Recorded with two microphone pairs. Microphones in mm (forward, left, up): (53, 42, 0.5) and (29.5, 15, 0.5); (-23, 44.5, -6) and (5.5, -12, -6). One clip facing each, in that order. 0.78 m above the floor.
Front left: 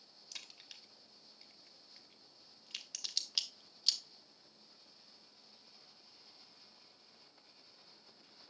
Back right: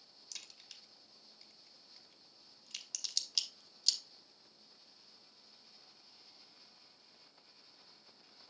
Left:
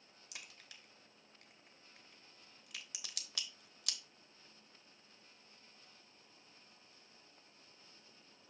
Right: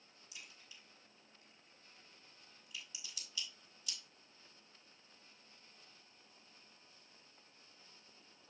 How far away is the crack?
About 1.1 m.